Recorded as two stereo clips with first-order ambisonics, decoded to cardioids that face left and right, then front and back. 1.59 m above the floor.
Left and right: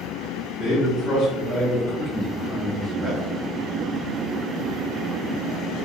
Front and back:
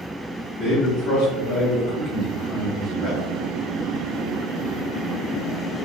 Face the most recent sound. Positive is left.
turn(degrees=-20)